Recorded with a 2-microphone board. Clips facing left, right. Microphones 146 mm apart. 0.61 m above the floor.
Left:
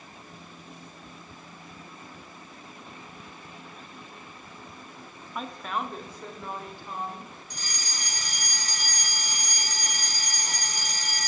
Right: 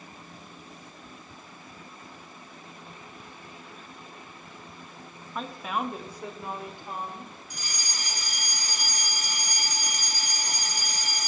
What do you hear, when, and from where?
5.3 s a woman speaking: 5° left (ahead or behind), 1.0 m; by 7.3 s 15° right (ahead or behind), 3.5 m
7.5 s a fire alarm: 10° right (ahead or behind), 2.5 m